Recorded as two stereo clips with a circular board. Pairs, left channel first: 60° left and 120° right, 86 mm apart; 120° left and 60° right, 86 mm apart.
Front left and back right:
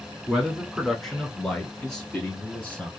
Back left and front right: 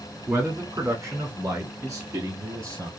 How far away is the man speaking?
About 1.1 m.